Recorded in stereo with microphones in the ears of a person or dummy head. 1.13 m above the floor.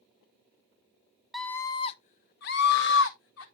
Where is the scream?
Centre (ahead or behind), 0.5 m; by 3.5 s 70° left (ahead or behind), 1.1 m.